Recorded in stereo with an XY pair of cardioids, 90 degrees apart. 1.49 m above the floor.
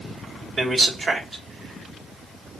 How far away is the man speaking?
About 0.7 m.